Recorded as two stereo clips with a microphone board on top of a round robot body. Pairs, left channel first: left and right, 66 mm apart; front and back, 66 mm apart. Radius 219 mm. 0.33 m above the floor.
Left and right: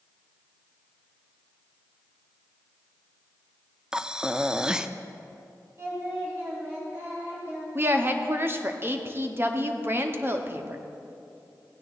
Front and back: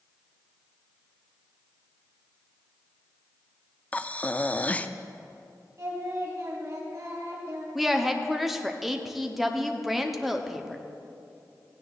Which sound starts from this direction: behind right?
Singing, at 5.8 s.